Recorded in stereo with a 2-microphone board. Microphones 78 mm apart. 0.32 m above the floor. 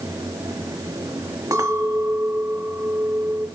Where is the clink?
50° right (ahead or behind), 1.9 m.